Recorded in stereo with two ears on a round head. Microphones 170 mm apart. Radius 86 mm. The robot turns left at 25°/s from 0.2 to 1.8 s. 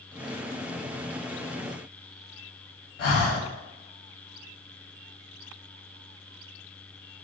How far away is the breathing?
About 1.1 m.